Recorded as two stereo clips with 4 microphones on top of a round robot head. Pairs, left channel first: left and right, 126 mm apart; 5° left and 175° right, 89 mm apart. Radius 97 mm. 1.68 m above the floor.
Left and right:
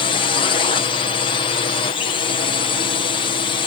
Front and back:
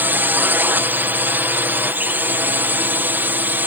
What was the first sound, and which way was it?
A drone, 125° left.